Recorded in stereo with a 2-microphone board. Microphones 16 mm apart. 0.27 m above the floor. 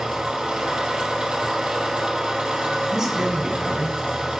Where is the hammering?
I don't hear hammering.